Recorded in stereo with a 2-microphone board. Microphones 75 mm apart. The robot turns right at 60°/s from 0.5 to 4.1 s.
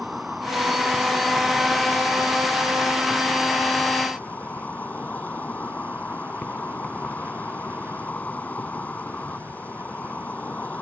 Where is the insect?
Straight behind; by 10.8 s 35° left.